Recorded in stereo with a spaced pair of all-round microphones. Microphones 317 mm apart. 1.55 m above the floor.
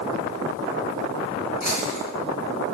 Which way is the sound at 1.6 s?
70° right (ahead or behind).